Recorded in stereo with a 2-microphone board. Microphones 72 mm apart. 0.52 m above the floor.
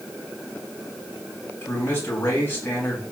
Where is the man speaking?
30° left (ahead or behind), 4 m.